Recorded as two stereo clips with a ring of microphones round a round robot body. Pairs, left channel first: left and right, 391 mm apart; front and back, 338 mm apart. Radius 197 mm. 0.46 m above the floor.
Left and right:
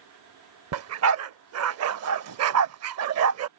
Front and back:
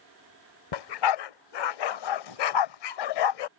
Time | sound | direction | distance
0.7 | a dog barking | 35° right | ?